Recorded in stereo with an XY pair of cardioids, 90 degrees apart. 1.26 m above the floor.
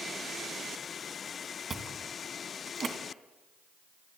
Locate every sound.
1.7 s chewing: 40° right, 2.5 m